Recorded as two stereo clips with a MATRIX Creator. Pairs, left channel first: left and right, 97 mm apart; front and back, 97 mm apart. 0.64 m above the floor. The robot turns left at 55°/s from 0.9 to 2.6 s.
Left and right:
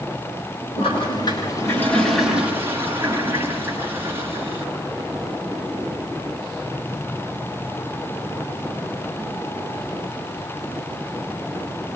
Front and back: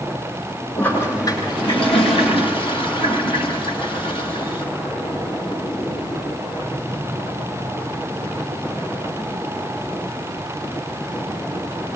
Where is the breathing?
I don't hear breathing.